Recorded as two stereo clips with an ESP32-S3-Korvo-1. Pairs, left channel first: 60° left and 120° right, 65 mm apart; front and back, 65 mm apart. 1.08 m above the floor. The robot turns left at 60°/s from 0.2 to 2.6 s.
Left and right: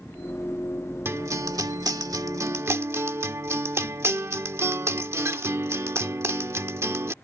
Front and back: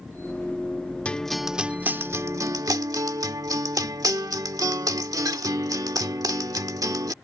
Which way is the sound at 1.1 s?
70° right.